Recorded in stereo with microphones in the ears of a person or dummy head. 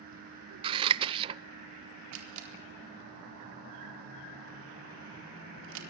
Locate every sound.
0.6 s scissors: 25° right (ahead or behind), 0.5 m
2.1 s a camera shutter: 70° right (ahead or behind), 4 m